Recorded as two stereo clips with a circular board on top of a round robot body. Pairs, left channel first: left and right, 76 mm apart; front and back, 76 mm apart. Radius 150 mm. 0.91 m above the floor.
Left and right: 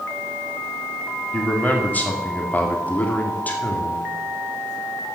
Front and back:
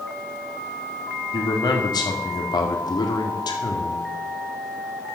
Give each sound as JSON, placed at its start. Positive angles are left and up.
{"t": 1.3, "sound": "a man speaking", "azimuth_deg": 20, "distance_m": 2.0}